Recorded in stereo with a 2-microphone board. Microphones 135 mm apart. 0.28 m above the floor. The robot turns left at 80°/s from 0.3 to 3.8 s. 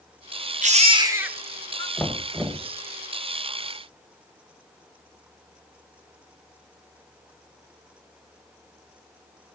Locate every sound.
0.6 s a baby crying: 115° right, 1.5 m; by 1.9 s 145° left, 1.5 m
2.0 s knocking: 5° left (ahead or behind), 1.3 m; by 2.7 s 15° right (ahead or behind), 1.3 m